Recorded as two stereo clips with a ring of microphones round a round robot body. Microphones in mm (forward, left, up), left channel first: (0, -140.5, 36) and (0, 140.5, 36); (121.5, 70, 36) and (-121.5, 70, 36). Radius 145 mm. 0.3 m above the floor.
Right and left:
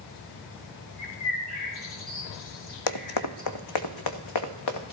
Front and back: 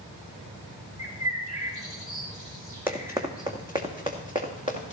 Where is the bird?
105° right, 4.5 m.